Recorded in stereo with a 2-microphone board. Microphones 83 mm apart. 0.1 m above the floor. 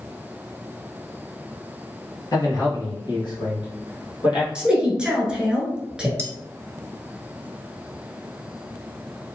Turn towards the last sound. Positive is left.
turn(degrees=-25)  # may be behind; listen again after turning